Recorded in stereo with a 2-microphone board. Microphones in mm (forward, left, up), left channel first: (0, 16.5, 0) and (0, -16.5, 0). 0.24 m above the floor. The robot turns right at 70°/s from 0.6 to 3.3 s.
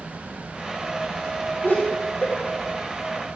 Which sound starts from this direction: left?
Laughter, at 1.6 s.